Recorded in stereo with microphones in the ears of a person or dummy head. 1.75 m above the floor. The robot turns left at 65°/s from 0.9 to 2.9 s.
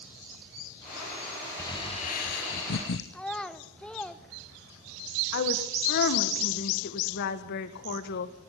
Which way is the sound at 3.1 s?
Centre (ahead or behind).